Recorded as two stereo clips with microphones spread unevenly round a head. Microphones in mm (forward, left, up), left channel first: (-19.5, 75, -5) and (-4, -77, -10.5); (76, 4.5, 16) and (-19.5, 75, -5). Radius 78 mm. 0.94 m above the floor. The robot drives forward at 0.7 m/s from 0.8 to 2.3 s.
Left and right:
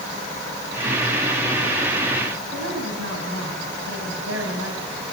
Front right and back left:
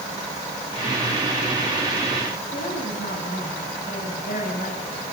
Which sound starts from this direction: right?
A woman speaking, at 2.5 s.